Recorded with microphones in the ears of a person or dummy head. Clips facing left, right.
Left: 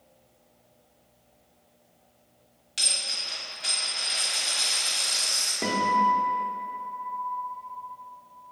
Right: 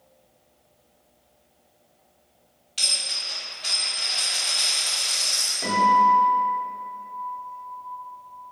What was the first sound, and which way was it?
A dropped coin, 20° left (ahead or behind).